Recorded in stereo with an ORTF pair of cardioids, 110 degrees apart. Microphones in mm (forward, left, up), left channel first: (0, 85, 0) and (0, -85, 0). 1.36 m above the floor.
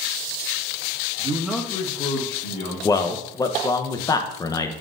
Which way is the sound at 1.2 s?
35° right.